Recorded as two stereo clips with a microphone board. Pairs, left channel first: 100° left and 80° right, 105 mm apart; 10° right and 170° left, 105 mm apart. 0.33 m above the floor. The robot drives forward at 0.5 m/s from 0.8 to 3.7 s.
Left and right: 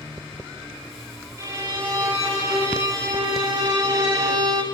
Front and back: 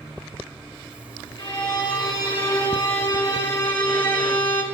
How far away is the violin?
About 3.5 m.